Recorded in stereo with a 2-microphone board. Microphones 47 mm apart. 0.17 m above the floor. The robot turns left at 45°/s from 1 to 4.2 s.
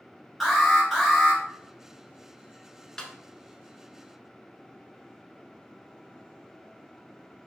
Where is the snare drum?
15° left (ahead or behind), 0.7 m; by 3.1 s 10° left (ahead or behind), 0.7 m.